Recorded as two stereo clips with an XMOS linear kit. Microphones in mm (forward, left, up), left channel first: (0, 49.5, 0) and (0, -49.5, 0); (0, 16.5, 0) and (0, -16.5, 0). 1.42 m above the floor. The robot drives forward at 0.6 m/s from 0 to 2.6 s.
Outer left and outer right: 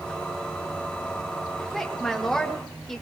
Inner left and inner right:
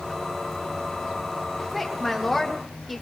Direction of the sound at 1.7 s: 5° left (ahead or behind).